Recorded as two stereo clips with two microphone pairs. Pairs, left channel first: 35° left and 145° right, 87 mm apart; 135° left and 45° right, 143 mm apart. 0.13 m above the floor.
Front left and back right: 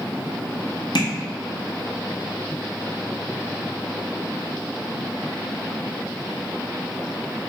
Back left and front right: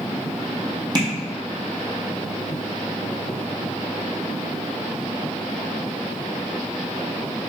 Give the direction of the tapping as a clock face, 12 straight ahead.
12 o'clock.